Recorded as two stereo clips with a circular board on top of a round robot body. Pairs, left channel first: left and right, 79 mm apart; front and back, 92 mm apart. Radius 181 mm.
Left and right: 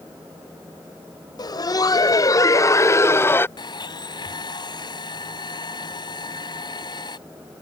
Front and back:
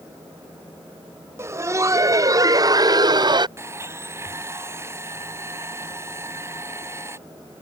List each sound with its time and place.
1.4 s laughter: 120° left; by 3.5 s 150° left
3.6 s a blender: 120° left